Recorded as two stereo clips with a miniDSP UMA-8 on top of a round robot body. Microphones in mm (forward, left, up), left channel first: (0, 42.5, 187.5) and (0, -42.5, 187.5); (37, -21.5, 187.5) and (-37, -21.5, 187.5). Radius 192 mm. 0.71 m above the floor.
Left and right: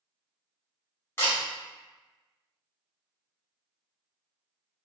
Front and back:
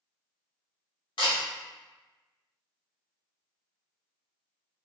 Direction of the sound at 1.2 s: 25° left.